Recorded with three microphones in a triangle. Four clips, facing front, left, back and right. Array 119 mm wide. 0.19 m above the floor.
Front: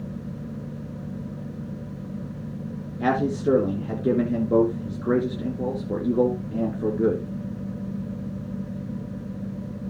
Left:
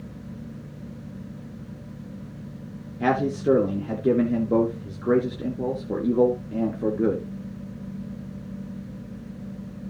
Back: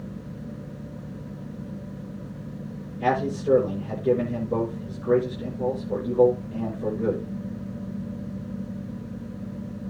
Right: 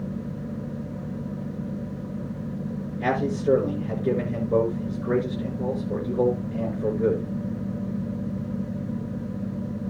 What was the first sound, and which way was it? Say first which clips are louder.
A man speaking: left 2 dB, front 2 dB; 50° left.